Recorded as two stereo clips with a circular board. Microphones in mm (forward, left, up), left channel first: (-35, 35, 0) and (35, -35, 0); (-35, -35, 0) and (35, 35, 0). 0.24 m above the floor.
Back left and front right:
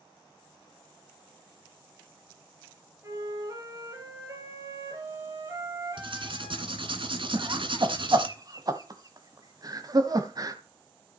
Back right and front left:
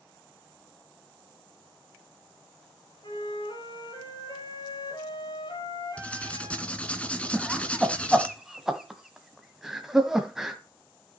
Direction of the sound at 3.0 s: 100° right.